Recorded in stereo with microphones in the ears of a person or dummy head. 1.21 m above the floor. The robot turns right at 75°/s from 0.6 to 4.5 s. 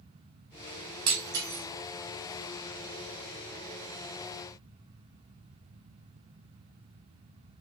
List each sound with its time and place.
1.1 s breaking glass: 25° right (ahead or behind), 1.0 m; by 1.6 s 10° right (ahead or behind), 1.0 m